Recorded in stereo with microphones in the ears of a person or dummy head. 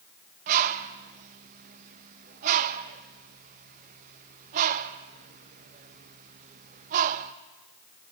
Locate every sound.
0.5 s a bird: 50° right (ahead or behind), 0.7 m